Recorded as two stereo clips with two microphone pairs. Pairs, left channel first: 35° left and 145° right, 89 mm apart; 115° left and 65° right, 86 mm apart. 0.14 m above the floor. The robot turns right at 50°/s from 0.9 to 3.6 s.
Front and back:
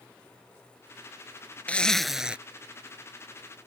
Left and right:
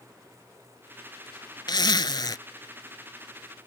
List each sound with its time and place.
1.7 s a zipper: 105° left; by 2.4 s 140° left